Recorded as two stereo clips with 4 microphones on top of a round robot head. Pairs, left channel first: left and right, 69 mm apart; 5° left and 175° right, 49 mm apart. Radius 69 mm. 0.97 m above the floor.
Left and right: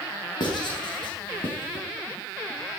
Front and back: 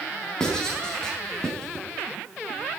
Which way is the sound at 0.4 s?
85° left.